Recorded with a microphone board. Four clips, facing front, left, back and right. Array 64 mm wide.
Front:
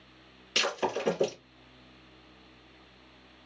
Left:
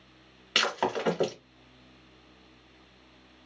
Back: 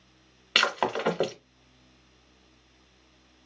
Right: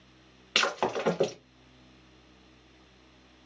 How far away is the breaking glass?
About 1.1 m.